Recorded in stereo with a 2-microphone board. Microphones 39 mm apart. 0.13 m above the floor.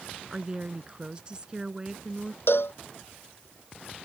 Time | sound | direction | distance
0.3 | a woman speaking | 25° right (ahead or behind) | ?
2.5 | a cowbell | 75° left (ahead or behind) | ?